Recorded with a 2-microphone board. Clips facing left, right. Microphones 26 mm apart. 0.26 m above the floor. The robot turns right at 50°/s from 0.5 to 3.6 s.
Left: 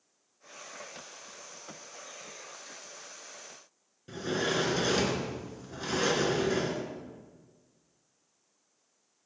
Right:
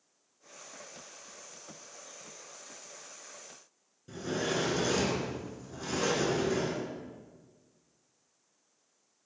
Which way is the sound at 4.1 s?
40° left (ahead or behind).